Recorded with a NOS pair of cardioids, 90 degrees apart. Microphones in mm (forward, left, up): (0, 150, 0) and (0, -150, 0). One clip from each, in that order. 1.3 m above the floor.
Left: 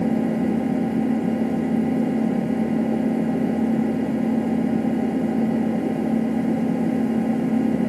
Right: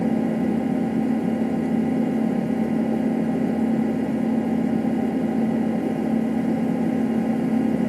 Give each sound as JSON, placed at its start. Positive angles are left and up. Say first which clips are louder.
{"t": 0.0, "sound": "an engine running", "louder": "left 1 dB", "azimuth_deg": 0}